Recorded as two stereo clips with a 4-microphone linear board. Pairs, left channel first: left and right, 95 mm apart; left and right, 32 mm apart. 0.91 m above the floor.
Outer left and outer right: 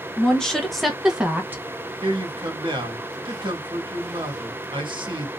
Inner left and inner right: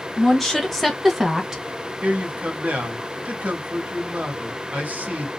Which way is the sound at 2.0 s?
55° right (ahead or behind).